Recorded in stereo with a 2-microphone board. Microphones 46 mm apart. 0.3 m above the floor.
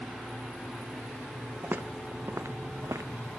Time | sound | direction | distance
1.6 | footsteps | 45° right (ahead or behind) | 0.9 m